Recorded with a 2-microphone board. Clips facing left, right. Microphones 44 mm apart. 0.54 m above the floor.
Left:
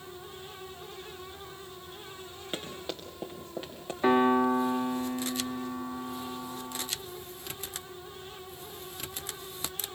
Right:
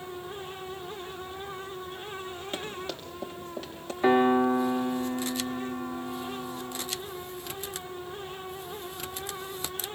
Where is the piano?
Centre (ahead or behind), 1.1 m.